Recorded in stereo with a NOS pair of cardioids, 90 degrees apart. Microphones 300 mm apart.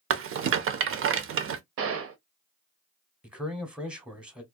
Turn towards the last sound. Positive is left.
turn(degrees=-5)